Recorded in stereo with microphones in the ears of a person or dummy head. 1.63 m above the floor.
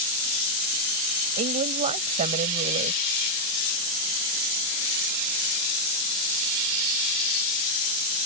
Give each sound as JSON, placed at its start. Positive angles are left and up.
{"t": 1.4, "sound": "a woman speaking", "side_deg": -40}